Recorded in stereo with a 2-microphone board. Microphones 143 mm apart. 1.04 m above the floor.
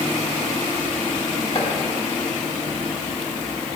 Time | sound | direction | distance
1.6 | chopping | 45° left (ahead or behind) | 1.6 m